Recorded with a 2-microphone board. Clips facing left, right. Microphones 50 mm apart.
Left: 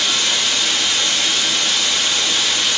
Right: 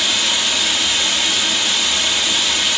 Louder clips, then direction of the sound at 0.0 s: Even; 5° right (ahead or behind).